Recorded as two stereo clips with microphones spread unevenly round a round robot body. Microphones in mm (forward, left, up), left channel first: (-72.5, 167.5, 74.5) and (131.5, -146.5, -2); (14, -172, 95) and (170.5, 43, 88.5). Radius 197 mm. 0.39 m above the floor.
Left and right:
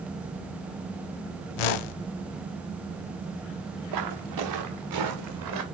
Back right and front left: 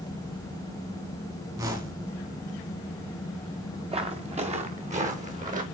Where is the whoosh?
135° left, 0.6 m.